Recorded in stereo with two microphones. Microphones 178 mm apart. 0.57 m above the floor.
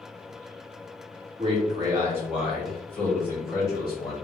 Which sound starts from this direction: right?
A man speaking, at 1.4 s.